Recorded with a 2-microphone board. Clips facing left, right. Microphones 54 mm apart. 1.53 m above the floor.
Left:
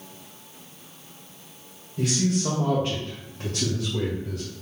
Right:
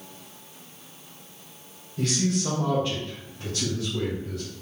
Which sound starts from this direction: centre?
A man speaking, at 2.0 s.